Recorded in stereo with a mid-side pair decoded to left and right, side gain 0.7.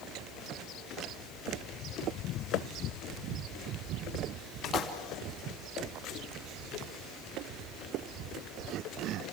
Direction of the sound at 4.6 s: 40° left.